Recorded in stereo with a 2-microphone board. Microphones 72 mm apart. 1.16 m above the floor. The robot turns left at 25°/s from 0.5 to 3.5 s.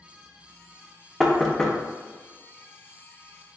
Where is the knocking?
5° right (ahead or behind), 0.5 m; by 1.8 s 10° left (ahead or behind), 0.5 m.